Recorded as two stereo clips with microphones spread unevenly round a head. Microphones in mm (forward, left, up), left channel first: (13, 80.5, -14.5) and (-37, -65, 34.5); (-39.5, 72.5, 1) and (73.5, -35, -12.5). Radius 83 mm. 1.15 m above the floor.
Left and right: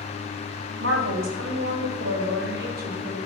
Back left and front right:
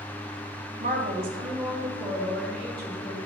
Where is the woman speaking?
90° right, 2.5 m; by 3.2 s 150° right, 2.5 m.